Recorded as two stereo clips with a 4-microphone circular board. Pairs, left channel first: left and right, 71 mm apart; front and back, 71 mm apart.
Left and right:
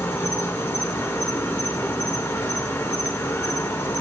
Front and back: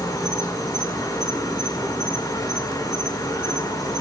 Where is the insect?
30° left, 4 m.